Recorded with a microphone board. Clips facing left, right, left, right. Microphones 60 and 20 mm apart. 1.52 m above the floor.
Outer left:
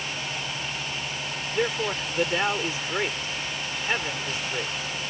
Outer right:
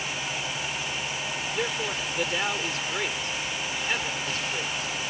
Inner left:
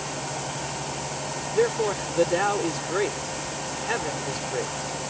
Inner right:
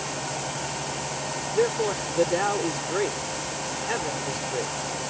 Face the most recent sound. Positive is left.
turn(degrees=20)  # may be behind; listen again after turning